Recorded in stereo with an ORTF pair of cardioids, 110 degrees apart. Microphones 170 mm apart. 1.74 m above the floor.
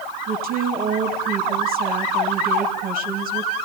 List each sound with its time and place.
0.3 s a woman speaking: 55° right, 3 m